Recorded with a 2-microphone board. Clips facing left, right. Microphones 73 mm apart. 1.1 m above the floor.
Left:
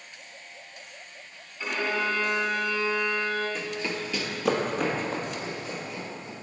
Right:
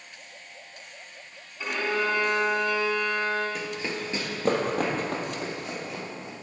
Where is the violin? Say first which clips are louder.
Right 1 dB; 15° right (ahead or behind), 2.5 m.